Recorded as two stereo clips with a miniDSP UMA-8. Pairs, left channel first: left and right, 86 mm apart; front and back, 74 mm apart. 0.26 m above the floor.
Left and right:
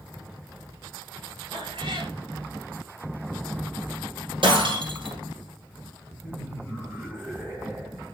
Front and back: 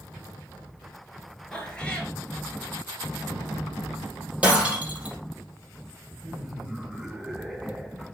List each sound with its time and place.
1.5 s a cat meowing: 75° right, 2.5 m
4.4 s breaking glass: 110° right, 3.5 m
6.2 s laughter: 110° right, 1.6 m